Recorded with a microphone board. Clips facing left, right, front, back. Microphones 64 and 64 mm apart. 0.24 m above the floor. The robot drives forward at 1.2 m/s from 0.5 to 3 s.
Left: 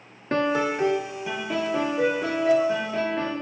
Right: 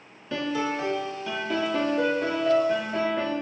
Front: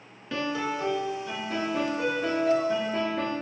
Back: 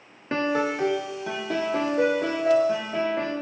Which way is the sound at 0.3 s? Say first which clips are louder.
Left 4 dB, back 5 dB; 130° left.